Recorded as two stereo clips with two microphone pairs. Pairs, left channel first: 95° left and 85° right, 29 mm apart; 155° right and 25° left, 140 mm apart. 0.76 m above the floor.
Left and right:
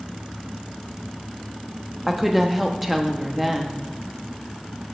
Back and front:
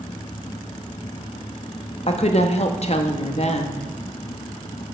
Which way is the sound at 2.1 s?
170° right.